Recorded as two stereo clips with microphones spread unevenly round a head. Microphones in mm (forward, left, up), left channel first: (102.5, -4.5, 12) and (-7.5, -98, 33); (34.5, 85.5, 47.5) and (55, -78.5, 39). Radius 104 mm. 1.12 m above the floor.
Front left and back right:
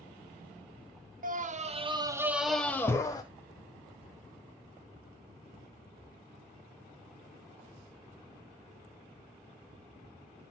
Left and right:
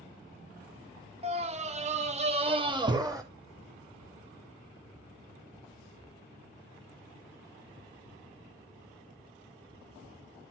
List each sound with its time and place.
1.2 s a scream: 130° right, 1.0 m; by 3.2 s 15° right, 1.2 m